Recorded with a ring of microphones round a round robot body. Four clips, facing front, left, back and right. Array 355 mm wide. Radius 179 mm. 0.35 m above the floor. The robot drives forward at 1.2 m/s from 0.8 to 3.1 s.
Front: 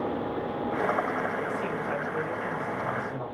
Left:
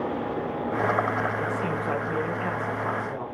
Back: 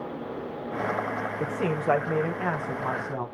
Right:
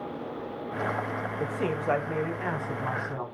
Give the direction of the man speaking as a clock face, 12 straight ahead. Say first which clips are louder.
Left 2 dB, back 3 dB; 5 o'clock.